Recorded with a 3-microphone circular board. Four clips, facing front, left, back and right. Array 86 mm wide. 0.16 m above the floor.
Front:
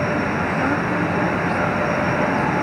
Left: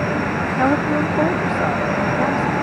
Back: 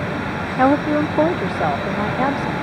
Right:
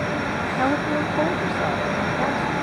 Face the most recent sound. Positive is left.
turn(degrees=175)